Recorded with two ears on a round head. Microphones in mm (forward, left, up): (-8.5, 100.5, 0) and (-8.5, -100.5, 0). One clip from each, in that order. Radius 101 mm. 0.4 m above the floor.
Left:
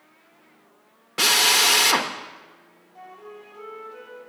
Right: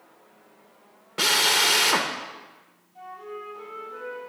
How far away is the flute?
About 2.5 m.